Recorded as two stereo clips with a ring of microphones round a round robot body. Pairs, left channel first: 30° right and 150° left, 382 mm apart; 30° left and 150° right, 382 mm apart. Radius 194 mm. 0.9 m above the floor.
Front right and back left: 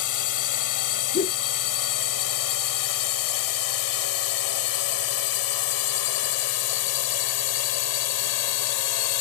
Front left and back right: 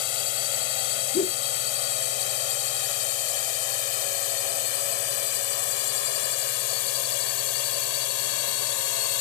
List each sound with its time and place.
0.0 s a drone: 15° left; by 9.2 s straight ahead
1.1 s a whoosh: straight ahead